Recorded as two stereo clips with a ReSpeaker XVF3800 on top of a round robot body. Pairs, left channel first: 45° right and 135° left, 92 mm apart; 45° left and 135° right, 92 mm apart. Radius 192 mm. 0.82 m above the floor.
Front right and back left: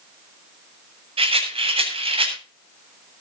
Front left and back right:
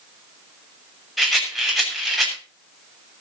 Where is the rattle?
135° left, 8 m.